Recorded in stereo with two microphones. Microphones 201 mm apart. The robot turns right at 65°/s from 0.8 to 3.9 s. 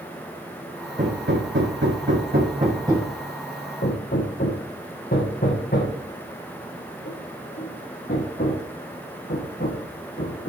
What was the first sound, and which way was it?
Hammering, 40° right (ahead or behind).